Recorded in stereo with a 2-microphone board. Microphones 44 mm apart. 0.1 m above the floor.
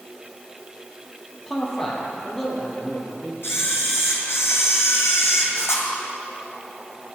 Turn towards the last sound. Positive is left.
turn(degrees=75)  # may be behind; listen again after turning